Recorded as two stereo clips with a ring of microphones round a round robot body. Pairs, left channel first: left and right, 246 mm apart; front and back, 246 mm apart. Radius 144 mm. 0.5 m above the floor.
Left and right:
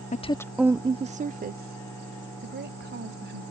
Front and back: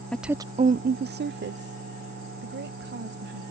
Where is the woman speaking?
80° left; by 3.4 s 135° right.